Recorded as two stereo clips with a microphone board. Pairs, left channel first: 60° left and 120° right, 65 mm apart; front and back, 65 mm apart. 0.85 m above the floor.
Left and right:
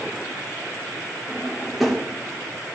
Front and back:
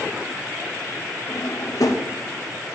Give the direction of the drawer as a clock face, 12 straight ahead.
1 o'clock.